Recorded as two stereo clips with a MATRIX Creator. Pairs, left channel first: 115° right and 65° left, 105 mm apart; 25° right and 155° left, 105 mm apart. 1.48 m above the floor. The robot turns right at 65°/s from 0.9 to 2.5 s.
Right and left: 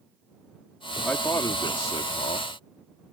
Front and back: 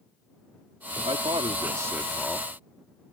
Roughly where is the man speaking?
Behind.